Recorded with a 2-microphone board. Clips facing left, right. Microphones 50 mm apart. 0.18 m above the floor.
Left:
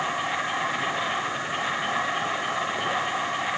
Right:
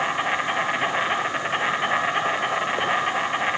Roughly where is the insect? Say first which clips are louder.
Right 3 dB; right.